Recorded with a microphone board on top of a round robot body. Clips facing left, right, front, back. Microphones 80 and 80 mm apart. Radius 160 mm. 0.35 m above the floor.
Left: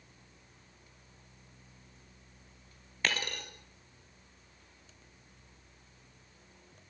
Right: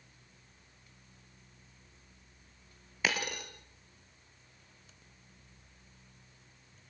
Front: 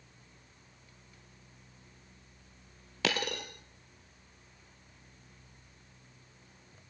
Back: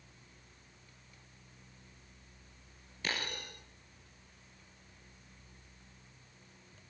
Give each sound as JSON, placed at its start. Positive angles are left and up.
{"t": 3.0, "sound": "a dropped coin", "azimuth_deg": -5, "distance_m": 2.5}